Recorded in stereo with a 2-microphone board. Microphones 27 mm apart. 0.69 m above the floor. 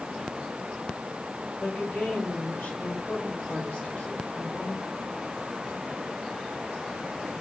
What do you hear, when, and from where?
1.6 s a woman speaking: 80° left, 3 m